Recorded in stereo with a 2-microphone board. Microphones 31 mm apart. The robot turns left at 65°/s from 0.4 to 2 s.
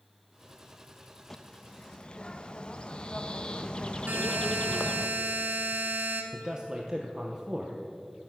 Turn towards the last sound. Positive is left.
turn(degrees=-20)  # may be behind; listen again after turning